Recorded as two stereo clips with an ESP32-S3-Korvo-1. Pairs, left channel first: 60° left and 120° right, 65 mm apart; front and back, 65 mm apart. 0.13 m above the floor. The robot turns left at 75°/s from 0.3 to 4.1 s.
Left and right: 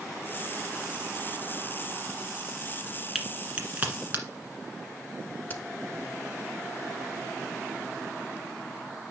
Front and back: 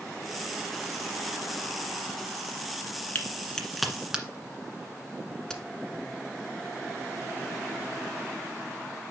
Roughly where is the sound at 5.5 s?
Left.